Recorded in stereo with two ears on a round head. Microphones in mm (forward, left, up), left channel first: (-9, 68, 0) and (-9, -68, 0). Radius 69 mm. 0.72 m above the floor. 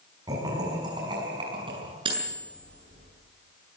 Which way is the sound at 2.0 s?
30° right (ahead or behind).